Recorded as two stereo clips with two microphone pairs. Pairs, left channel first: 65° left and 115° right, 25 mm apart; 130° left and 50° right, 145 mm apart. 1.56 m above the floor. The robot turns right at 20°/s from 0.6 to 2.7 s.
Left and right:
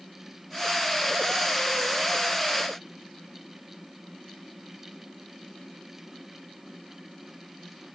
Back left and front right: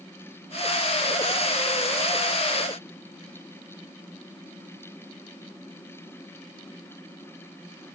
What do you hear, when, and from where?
Only background noise.